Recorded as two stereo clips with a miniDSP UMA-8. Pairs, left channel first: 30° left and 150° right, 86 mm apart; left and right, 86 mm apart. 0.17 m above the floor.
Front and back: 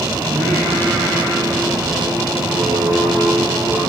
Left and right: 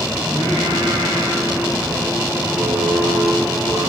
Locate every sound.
0.2 s singing: 125° right, 5 m